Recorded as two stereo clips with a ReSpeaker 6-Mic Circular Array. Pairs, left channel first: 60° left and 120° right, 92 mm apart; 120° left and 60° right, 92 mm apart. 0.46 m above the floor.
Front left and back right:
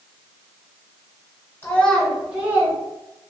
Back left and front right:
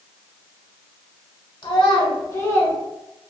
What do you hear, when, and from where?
1.6 s a child speaking: 125° left, 1.1 m; by 2.8 s 175° right, 1.2 m